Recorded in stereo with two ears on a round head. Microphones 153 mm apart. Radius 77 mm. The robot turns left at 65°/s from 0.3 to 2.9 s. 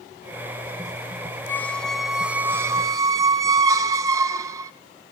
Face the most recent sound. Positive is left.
turn(degrees=-20)  # may be behind; listen again after turning